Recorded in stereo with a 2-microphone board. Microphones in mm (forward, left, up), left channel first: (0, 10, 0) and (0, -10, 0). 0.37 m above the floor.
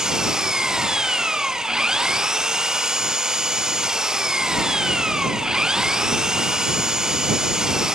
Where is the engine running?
30° right (ahead or behind).